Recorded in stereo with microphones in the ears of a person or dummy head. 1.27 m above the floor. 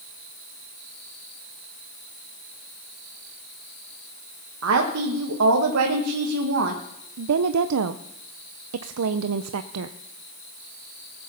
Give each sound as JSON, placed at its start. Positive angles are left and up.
{"t": 4.6, "sound": "a woman speaking", "side_deg": -75, "distance_m": 1.3}
{"t": 7.2, "sound": "a woman speaking", "side_deg": -85, "distance_m": 0.5}